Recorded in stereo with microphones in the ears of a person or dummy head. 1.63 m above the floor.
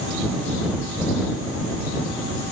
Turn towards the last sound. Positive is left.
No sound to turn to.